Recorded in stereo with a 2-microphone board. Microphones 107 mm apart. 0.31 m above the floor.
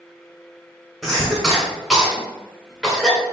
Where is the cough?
Centre (ahead or behind), 1.4 m.